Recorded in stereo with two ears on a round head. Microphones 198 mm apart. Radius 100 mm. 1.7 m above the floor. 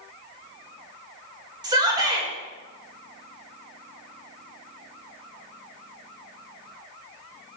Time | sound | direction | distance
1.6 | a shout | 20° right (ahead or behind) | 1.8 m